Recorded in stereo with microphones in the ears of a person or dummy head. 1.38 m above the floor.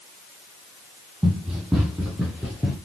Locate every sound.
1.2 s running footsteps: 5° right (ahead or behind), 2.5 m; by 2.8 s centre (ahead or behind), 3.5 m